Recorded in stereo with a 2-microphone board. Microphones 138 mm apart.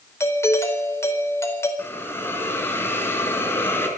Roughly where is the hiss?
Centre.